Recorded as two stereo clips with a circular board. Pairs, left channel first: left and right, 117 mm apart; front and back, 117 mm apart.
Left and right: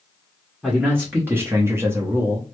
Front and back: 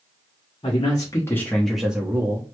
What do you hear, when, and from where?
0.6 s a man speaking: 20° right, 1.0 m; by 2.5 s 145° right, 0.9 m